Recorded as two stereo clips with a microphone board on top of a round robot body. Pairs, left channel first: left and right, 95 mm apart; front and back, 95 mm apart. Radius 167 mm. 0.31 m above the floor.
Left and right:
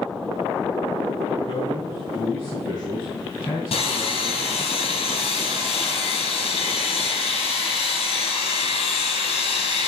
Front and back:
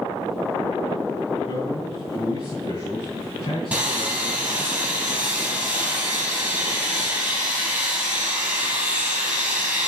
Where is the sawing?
100° left, 4.5 m.